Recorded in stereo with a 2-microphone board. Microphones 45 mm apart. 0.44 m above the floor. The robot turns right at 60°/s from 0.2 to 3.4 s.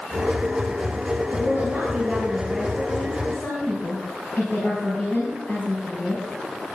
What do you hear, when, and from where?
1.3 s a woman speaking: 80° right, 4 m; by 6.2 s 45° left, 4 m